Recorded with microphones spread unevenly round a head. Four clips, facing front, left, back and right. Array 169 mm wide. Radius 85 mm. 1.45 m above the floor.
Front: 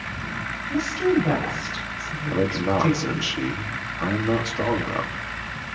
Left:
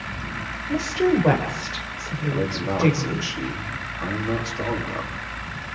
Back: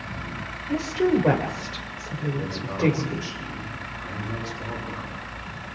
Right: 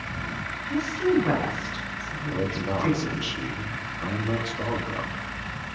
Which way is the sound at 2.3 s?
10° left.